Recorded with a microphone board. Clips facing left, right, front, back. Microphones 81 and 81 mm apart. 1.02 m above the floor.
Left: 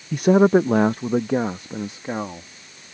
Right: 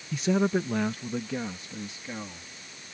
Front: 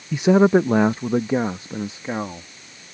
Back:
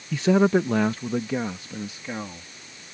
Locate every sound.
0.1 s a man speaking: 70° left; by 2.5 s 55° left